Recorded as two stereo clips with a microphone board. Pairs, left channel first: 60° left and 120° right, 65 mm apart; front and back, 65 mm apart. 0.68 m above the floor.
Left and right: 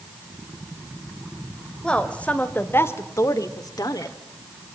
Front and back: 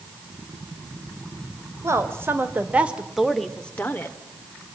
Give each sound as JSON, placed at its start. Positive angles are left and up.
{"t": 1.8, "sound": "a woman speaking", "azimuth_deg": 140, "distance_m": 3.0}